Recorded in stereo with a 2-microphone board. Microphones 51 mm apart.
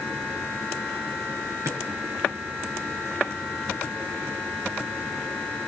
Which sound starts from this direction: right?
A drawer, at 1.6 s.